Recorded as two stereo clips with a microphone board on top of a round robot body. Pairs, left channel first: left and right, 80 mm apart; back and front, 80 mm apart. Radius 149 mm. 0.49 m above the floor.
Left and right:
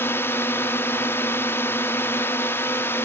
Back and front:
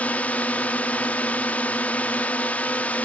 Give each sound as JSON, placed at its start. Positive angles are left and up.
{"t": 0.0, "sound": "a drone", "azimuth_deg": 125}